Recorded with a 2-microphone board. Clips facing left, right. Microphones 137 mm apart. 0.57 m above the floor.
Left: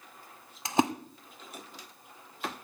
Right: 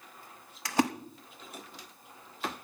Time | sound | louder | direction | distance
0.7 | a splash | left 1 dB | 25° left (ahead or behind) | 0.8 m